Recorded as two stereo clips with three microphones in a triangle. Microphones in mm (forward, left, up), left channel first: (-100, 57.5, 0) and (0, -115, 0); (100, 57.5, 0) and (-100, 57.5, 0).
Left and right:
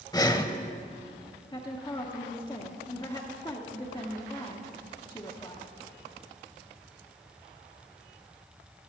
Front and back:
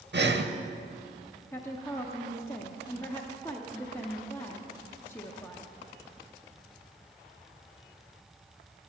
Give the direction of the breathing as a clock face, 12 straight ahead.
6 o'clock.